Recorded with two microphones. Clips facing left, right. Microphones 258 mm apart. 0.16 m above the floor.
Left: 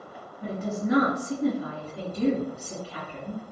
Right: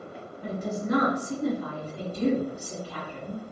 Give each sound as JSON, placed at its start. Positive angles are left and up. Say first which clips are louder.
{"t": 0.4, "sound": "a woman speaking", "louder": "left 2 dB", "side_deg": 10, "distance_m": 1.8}